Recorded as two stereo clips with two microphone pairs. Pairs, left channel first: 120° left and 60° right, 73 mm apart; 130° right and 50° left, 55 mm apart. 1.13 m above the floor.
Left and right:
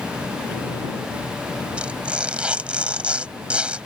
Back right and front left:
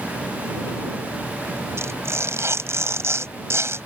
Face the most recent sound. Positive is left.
turn(degrees=15)